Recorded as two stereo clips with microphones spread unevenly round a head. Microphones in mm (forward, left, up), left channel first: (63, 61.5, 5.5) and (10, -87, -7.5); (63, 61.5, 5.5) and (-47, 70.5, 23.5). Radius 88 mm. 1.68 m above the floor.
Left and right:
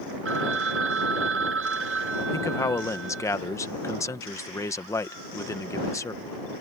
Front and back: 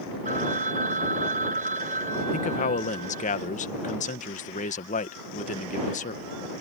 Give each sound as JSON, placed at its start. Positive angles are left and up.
{"t": 0.2, "sound": "a phone ringing", "azimuth_deg": -135}
{"t": 2.3, "sound": "a man speaking", "azimuth_deg": 0}